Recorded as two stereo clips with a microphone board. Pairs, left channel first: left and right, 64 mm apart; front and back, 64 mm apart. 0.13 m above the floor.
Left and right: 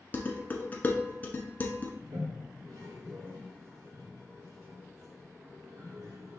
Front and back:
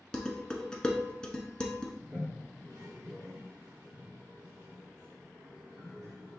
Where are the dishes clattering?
65° left, 0.8 m.